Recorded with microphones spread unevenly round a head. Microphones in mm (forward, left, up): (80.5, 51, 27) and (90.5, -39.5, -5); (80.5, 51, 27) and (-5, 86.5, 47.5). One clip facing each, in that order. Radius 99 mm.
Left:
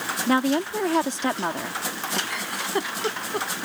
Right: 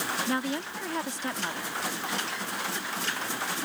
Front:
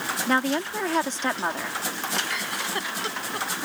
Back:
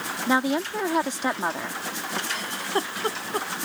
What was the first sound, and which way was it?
A woman speaking, 80° left.